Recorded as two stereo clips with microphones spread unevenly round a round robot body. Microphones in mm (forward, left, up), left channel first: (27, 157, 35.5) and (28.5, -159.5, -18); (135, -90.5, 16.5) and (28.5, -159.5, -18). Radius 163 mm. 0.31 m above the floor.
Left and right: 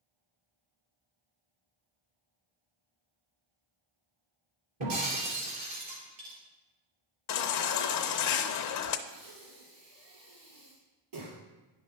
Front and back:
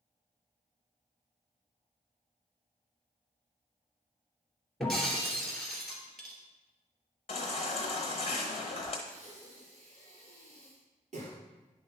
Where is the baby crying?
80° left, 0.6 m.